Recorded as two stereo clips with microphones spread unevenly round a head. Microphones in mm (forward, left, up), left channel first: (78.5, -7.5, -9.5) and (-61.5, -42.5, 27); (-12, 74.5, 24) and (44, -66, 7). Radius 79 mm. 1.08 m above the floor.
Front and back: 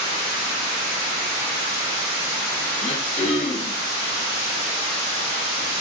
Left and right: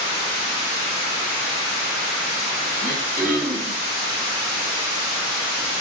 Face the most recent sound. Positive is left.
turn(degrees=-40)